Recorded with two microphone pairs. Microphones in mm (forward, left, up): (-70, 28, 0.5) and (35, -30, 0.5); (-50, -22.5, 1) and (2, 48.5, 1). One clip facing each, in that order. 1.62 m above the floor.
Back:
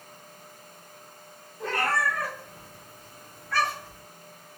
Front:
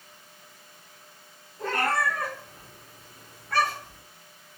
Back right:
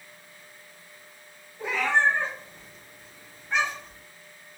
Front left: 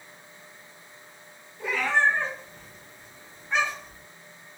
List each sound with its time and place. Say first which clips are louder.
1.6 s a cat meowing: front 1 dB, even; 65° right, 1.9 m; by 4.0 s 30° right, 2.5 m